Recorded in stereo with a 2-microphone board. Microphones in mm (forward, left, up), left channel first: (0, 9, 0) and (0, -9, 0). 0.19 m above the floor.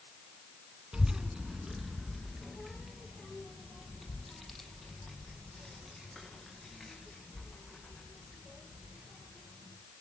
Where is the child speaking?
45° right (ahead or behind), 1.1 m; by 9.7 s 30° left (ahead or behind), 9.5 m.